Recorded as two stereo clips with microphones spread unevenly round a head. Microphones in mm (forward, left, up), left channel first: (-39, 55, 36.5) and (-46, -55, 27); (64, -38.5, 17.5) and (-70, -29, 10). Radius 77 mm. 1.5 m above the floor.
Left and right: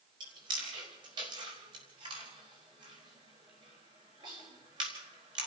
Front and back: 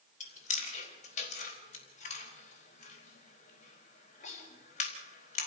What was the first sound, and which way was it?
Chewing, 35° right.